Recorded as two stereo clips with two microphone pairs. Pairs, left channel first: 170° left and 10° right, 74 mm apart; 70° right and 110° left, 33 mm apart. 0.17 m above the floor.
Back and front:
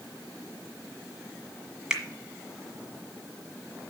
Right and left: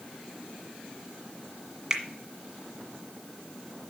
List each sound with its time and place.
1.9 s a finger snap: 65° left, 1.6 m